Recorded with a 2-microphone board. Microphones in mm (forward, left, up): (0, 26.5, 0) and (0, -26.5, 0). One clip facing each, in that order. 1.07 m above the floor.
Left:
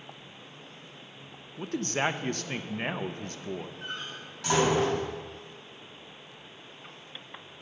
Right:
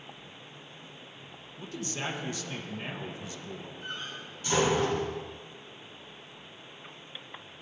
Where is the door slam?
70° left (ahead or behind), 5 m.